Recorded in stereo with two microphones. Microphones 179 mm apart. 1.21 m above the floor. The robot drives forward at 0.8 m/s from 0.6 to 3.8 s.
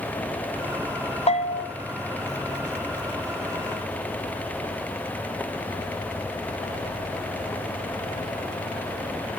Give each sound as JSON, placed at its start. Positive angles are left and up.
{"t": 1.3, "sound": "a bell", "side_deg": 35, "distance_m": 1.0}